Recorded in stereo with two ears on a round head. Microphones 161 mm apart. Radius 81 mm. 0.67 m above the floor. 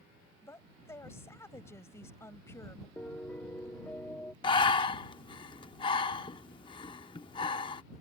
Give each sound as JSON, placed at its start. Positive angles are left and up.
{"t": 0.4, "sound": "a woman speaking", "side_deg": 15}
{"t": 3.0, "sound": "a piano", "side_deg": 10}
{"t": 4.4, "sound": "breathing", "side_deg": 25}